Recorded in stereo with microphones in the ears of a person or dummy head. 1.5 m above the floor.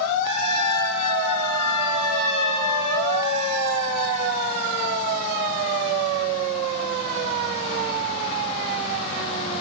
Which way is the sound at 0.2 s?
40° right (ahead or behind).